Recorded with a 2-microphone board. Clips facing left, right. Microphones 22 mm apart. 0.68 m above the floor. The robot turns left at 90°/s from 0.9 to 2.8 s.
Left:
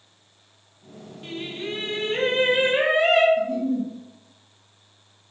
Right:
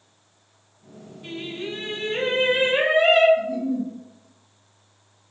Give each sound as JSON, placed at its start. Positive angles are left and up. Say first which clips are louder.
{"t": 1.2, "sound": "singing", "louder": "even", "azimuth_deg": 130, "distance_m": 1.6}
{"t": 3.4, "sound": "a giggle", "louder": "left 1 dB", "side_deg": 45, "distance_m": 1.1}